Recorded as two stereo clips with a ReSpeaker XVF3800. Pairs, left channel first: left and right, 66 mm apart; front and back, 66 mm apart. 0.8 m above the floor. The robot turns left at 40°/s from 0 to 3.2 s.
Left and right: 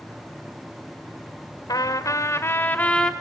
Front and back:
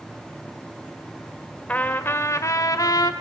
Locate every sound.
1.7 s a trumpet: 65° left, 1.8 m; by 3.1 s 10° left, 1.8 m